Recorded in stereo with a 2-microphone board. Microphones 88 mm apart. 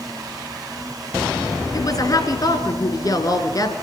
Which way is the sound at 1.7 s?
45° left (ahead or behind).